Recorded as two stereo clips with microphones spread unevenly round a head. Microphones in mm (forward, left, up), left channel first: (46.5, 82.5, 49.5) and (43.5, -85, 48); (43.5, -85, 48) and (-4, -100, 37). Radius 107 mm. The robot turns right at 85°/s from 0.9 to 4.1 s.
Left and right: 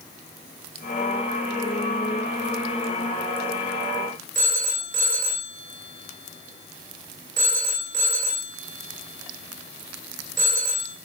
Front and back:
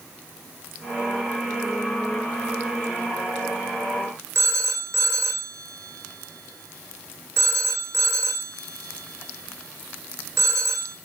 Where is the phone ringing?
145° right, 3 m.